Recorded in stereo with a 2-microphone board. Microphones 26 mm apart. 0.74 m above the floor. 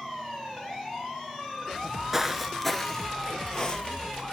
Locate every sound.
1.7 s footsteps: 25° right (ahead or behind), 0.7 m; by 4.2 s 35° left (ahead or behind), 1.5 m